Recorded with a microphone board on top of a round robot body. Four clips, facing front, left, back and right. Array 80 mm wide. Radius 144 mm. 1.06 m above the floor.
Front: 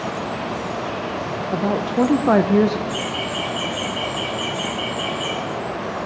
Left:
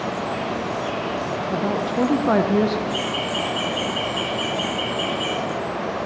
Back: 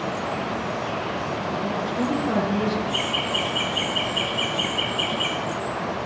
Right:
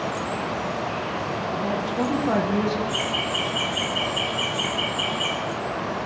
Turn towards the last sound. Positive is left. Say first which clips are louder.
# left 2 dB, front 1 dB
turn(degrees=-170)